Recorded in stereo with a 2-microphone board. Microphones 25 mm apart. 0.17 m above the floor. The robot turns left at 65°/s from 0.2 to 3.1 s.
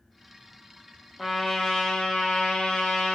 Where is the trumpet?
175° right, 0.9 m; by 3.2 s 60° left, 0.9 m.